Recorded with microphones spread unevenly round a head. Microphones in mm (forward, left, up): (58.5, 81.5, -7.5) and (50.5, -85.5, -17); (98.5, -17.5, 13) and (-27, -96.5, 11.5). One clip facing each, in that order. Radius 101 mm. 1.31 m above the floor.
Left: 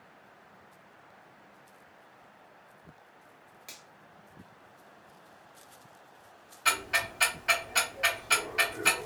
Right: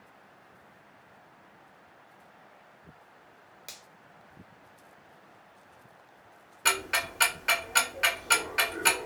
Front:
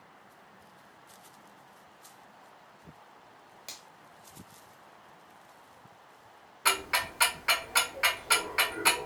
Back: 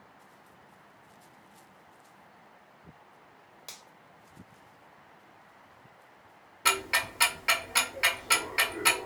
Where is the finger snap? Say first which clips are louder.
Right 1 dB, even; 55° right, 1.3 m.